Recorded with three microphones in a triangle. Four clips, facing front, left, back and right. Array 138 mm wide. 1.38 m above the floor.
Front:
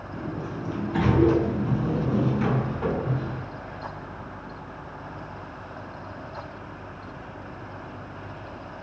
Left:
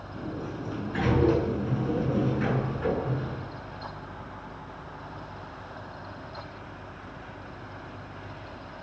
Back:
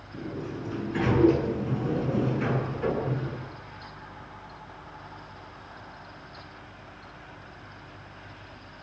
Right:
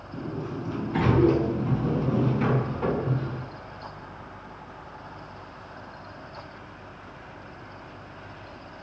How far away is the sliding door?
About 6.5 m.